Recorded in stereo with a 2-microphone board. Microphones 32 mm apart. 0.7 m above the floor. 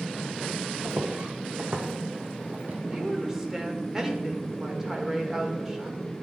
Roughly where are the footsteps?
Right.